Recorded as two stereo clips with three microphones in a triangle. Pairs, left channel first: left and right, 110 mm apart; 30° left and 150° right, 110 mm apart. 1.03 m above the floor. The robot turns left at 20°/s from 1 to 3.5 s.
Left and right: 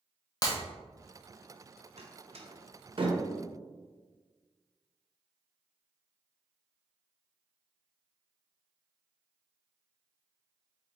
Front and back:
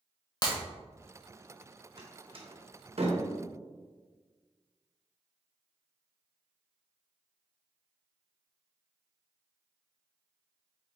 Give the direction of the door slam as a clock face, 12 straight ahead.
4 o'clock.